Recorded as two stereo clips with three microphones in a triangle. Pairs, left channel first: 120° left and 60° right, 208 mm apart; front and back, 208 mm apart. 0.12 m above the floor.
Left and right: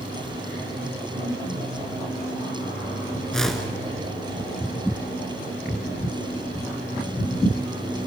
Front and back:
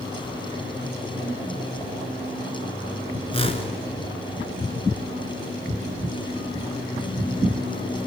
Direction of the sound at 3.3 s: 35° left.